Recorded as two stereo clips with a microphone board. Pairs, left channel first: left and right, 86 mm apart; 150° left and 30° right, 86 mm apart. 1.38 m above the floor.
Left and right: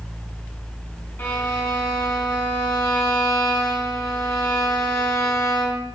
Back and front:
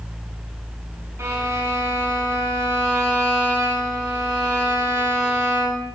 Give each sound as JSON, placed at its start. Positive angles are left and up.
{"t": 1.2, "sound": "a violin", "azimuth_deg": 25, "distance_m": 6.5}